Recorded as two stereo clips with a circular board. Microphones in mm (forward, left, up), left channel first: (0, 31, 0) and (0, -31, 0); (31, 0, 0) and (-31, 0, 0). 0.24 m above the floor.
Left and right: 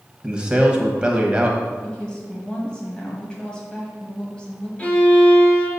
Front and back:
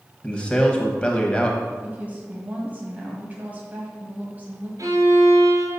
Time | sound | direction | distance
0.2 | a man speaking | 40° right | 1.1 m
1.8 | a woman speaking | 150° left | 1.7 m
4.8 | a violin | 160° left | 1.6 m